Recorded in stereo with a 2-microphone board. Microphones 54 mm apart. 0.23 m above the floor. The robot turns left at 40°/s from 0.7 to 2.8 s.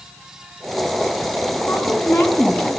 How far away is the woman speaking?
About 3 m.